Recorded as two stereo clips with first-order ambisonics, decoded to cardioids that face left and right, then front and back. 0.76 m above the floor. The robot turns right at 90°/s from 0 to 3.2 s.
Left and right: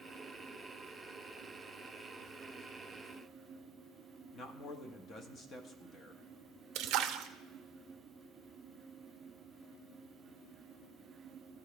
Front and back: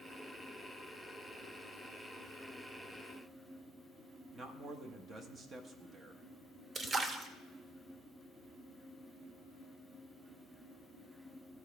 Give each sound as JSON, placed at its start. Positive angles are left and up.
{"t": 4.3, "sound": "a man speaking", "azimuth_deg": 130, "distance_m": 0.8}
{"t": 6.8, "sound": "a splash", "azimuth_deg": -110, "distance_m": 0.6}